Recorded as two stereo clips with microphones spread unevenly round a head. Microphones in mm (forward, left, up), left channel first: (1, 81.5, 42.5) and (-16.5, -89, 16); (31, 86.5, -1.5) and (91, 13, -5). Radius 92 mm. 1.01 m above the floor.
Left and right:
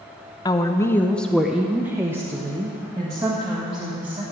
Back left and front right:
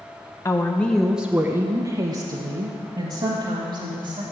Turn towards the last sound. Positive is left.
turn(degrees=-35)